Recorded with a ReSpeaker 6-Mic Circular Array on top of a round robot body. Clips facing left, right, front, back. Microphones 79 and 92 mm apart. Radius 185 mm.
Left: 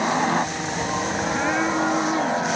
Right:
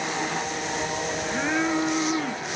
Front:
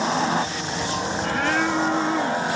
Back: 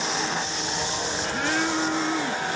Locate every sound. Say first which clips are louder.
0.0 s a helicopter: left 7 dB, front 6 dB; 50° left; by 2.6 s 55° left